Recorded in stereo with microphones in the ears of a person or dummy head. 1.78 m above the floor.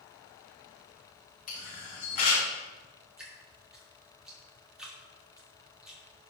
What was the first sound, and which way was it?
A camera shutter, 45° left (ahead or behind).